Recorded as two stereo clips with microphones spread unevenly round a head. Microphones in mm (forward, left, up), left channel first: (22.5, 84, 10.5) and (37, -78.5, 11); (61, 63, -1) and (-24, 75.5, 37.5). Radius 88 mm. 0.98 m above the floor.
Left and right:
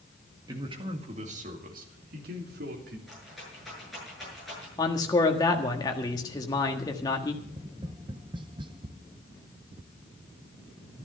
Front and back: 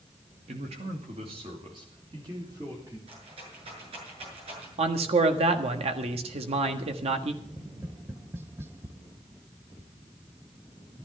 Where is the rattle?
175° right, 8 m.